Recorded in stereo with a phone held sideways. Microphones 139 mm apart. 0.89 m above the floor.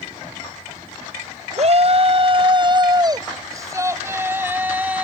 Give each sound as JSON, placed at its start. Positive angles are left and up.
{"t": 1.6, "sound": "a shout", "side_deg": -50}